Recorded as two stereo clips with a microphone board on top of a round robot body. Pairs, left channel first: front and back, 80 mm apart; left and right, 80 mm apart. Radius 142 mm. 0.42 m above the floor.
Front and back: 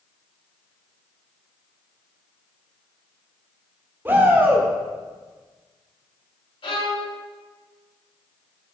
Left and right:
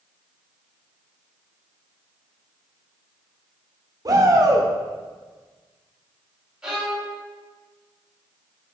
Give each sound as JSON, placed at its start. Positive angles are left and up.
{"t": 4.0, "sound": "a shout", "azimuth_deg": -120, "distance_m": 1.7}
{"t": 6.6, "sound": "a violin", "azimuth_deg": -10, "distance_m": 1.8}